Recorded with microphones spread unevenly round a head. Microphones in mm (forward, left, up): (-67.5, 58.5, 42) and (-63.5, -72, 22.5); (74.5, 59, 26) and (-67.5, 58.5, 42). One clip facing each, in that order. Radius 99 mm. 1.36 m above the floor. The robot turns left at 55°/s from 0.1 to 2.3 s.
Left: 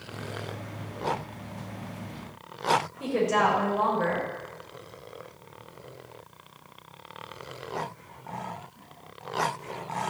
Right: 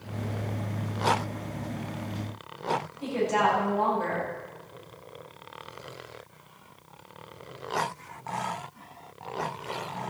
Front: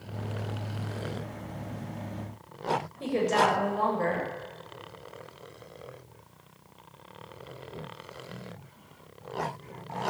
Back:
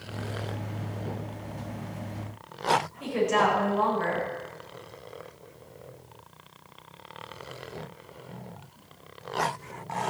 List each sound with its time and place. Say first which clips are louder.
3.0 s a woman speaking: right 1 dB, front 2 dB; 55° left, 6.5 m